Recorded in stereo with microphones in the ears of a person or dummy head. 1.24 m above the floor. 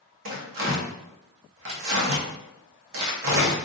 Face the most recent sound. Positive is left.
turn(degrees=-65)  # may be behind; listen again after turning